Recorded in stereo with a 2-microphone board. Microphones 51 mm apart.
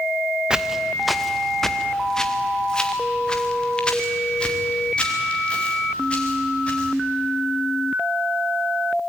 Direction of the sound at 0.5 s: 15° right (ahead or behind).